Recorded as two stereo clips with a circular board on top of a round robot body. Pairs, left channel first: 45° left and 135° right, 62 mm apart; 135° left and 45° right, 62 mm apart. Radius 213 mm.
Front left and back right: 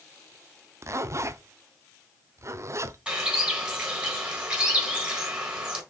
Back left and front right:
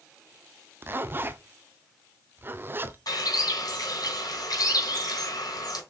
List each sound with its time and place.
0.8 s a zipper: 100° right, 1.0 m
3.1 s a bird: 150° left, 3.5 m